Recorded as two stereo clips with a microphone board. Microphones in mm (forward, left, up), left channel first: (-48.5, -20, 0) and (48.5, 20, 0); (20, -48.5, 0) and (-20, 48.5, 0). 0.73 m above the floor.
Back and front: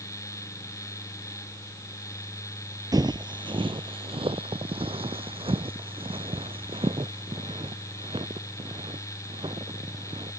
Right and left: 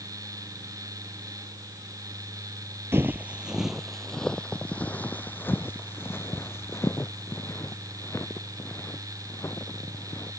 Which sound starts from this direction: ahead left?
Footsteps, at 2.9 s.